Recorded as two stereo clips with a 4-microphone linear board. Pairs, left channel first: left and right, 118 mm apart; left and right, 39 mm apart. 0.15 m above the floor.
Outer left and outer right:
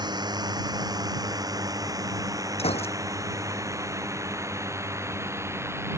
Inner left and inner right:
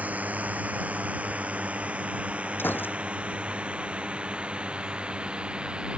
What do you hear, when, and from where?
0.0 s a drone: 35° right (ahead or behind); by 6.0 s 20° right (ahead or behind)
2.6 s a gunshot: 55° left (ahead or behind)